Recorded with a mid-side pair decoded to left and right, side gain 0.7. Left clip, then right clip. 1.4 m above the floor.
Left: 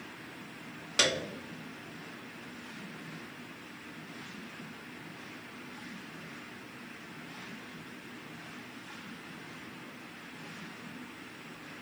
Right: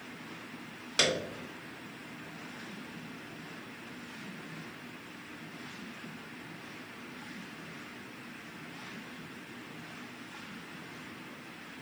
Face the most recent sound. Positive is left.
turn(degrees=0)